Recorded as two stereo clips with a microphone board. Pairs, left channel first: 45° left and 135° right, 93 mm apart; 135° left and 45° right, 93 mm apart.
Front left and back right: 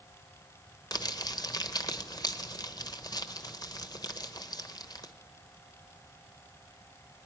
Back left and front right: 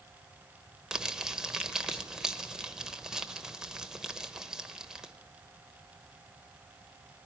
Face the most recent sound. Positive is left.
turn(degrees=35)